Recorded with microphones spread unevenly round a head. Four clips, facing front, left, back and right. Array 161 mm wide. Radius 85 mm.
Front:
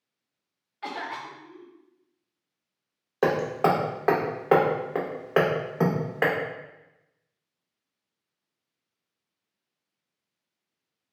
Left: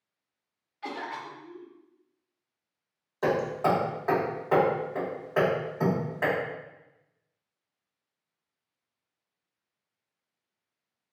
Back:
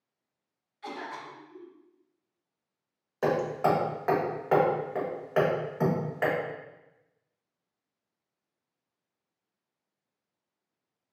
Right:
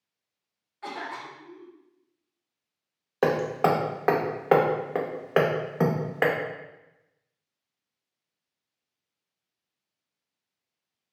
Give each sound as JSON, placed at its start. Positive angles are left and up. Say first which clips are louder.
{"t": 0.8, "sound": "a cough", "louder": "even, front 4 dB", "azimuth_deg": -10, "distance_m": 0.8}
{"t": 3.2, "sound": "hammering", "louder": "right 3 dB, front 3 dB", "azimuth_deg": -50, "distance_m": 0.6}